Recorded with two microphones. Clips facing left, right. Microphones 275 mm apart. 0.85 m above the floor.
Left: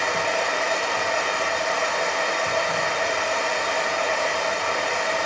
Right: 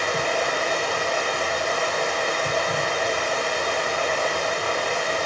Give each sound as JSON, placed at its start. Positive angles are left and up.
{"t": 0.0, "sound": "running water", "side_deg": -40, "distance_m": 1.1}